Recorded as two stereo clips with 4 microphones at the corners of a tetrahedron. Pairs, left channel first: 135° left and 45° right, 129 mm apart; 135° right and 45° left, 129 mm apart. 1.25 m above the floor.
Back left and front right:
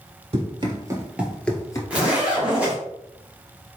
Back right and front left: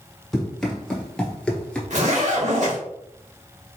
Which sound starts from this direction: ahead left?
A zipper, at 1.9 s.